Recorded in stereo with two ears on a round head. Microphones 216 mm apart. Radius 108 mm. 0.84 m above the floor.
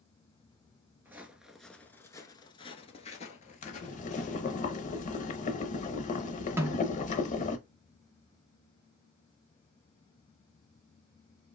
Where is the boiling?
35° left (ahead or behind), 0.7 m.